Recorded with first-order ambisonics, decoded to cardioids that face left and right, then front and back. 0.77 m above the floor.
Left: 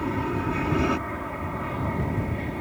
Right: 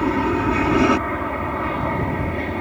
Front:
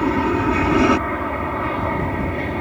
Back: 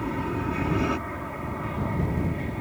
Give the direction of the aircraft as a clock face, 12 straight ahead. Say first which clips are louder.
Right 8 dB, front 11 dB; 1 o'clock.